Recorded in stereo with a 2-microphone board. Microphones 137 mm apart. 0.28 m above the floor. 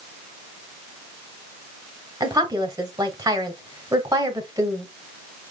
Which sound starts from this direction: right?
A woman speaking, at 2.2 s.